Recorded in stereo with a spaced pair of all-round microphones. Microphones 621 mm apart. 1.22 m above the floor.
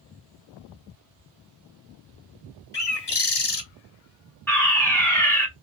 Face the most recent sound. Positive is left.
turn(degrees=5)  # may be behind; listen again after turning